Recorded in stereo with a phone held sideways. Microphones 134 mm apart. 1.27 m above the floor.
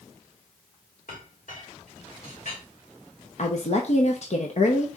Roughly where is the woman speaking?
Left.